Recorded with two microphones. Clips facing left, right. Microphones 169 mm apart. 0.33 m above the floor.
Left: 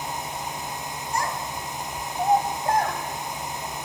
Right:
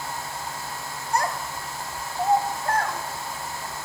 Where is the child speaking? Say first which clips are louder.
Right 3 dB; 60° right (ahead or behind), 1.5 m; by 3.0 s 30° left (ahead or behind), 1.8 m.